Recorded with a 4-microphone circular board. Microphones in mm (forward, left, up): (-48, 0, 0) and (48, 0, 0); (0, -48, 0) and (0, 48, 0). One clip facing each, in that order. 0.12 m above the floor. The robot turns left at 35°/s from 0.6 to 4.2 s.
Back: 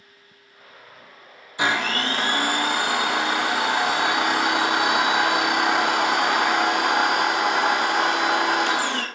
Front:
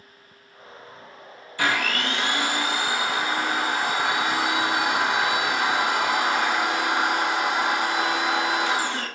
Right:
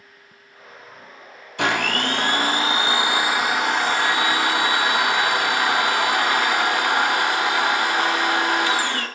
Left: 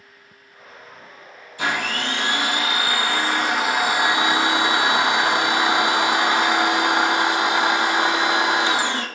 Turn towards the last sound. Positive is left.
turn(degrees=160)